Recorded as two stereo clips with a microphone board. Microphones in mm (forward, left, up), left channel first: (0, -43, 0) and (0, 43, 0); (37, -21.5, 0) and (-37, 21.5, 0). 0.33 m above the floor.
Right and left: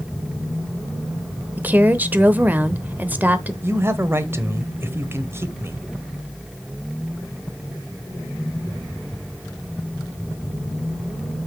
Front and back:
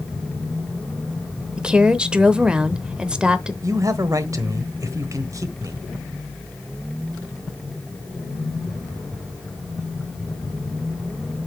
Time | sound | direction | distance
1.6 | a woman speaking | 95° left | 0.8 m
3.6 | a man speaking | 135° left | 1.1 m